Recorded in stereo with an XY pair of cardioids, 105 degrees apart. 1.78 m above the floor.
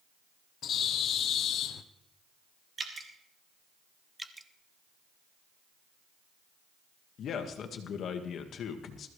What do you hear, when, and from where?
0.6 s a bird: 65° left, 0.9 m
2.8 s dripping: 35° right, 2 m
4.2 s dripping: 15° right, 0.8 m
7.2 s a man speaking: 60° left, 1.8 m